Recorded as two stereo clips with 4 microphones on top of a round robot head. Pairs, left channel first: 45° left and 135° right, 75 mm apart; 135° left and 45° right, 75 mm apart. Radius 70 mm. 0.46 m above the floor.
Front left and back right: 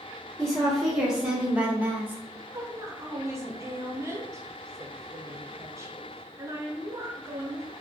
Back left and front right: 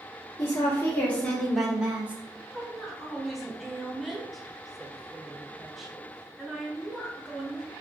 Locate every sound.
0.4 s a woman speaking: 135° left, 1.2 m; by 2.2 s 95° right, 1.1 m
2.5 s a woman speaking: 135° right, 0.8 m